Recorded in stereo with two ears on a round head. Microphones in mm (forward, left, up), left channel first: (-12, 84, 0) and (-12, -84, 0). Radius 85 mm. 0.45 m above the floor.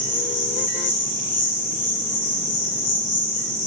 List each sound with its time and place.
0.0 s an insect: 40° left (ahead or behind), 3 m